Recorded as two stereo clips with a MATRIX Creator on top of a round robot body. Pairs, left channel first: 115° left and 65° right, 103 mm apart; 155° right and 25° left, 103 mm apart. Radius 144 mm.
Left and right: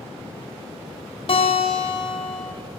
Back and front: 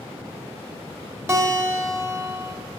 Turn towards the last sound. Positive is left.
turn(degrees=85)